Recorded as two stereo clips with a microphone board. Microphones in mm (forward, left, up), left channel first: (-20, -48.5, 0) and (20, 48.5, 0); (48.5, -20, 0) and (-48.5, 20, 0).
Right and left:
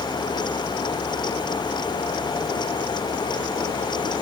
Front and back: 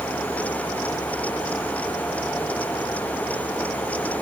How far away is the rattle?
I don't hear a rattle.